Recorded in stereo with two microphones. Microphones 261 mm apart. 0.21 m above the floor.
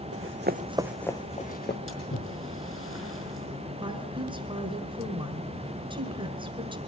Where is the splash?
55° left (ahead or behind), 4.5 m.